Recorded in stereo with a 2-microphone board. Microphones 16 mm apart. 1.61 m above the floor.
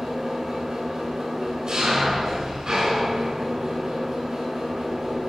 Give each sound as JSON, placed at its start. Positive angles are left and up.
{"t": 0.0, "sound": "an engine running", "side_deg": -55, "distance_m": 7.5}